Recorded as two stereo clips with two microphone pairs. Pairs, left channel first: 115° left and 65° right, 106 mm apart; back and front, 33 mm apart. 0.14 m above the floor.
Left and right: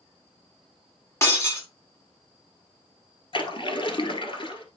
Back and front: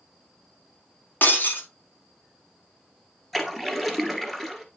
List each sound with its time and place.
1.2 s breaking glass: straight behind, 1.9 m
3.3 s a splash: 100° left, 1.4 m